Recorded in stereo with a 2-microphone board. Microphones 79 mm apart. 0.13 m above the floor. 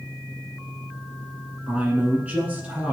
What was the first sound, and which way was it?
A man speaking, 20° right (ahead or behind).